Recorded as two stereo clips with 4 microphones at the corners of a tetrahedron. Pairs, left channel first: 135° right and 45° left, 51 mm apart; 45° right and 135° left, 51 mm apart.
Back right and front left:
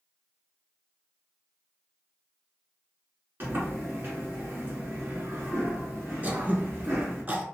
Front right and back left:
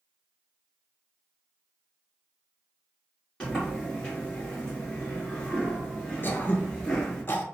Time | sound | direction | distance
3.4 | a sliding door | 25° left | 1.8 m
6.2 | throat clearing | 5° right | 0.5 m